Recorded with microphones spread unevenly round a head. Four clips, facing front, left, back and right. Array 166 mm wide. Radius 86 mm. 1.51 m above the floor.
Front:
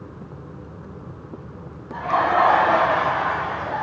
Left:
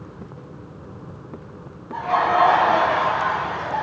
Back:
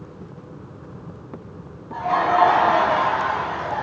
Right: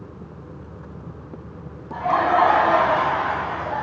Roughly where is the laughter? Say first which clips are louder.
Even, even; behind right.